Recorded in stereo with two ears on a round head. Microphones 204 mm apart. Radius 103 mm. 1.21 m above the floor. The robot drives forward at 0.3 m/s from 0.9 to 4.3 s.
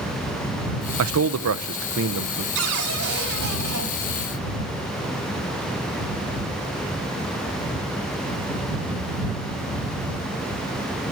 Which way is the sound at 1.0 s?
70° right (ahead or behind).